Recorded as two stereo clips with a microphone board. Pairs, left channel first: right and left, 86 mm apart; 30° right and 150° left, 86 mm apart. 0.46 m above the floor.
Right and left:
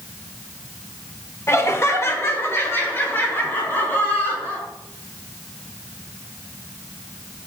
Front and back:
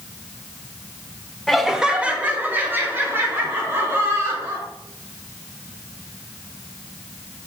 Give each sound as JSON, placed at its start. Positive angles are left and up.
{"t": 1.5, "sound": "laughter", "azimuth_deg": -115, "distance_m": 0.9}